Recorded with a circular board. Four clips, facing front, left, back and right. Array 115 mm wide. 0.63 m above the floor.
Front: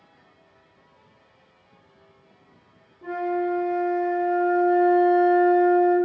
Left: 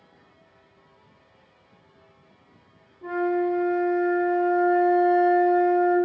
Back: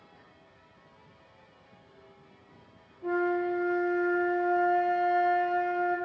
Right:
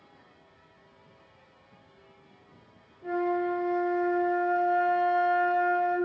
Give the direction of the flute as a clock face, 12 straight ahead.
11 o'clock.